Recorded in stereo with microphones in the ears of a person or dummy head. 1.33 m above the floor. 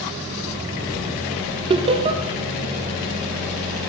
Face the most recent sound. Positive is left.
turn(degrees=-30)  # may be behind; listen again after turning